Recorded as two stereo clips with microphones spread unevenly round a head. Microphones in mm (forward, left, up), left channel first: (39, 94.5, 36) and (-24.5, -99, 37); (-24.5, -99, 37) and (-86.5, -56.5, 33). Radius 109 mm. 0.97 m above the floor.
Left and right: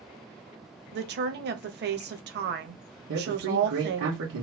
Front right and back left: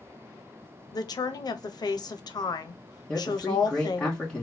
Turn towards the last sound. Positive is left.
turn(degrees=-115)